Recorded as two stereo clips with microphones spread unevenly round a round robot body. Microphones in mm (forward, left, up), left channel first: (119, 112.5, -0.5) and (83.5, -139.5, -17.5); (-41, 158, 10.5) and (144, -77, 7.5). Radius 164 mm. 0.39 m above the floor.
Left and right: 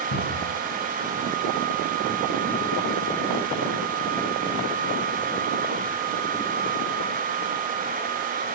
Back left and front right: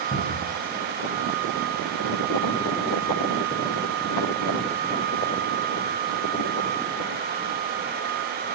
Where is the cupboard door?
60° left, 6 m.